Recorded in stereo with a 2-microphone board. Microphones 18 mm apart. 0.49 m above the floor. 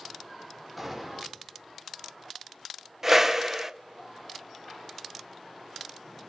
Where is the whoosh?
20° right (ahead or behind), 0.9 m.